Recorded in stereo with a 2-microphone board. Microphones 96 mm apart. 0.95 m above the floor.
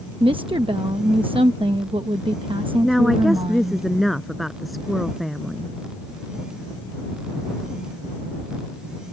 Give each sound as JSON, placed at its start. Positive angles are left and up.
{"t": 0.2, "sound": "a woman speaking", "side_deg": -60}
{"t": 2.8, "sound": "a woman speaking", "side_deg": 0}